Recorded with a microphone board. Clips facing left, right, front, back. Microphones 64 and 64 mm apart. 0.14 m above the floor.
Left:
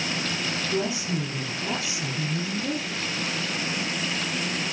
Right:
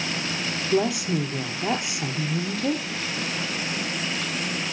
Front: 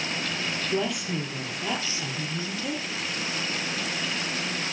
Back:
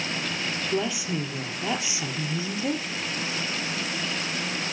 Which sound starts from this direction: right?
A woman speaking, at 0.7 s.